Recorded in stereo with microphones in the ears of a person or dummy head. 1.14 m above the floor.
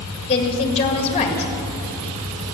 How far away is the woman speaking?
About 1.9 m.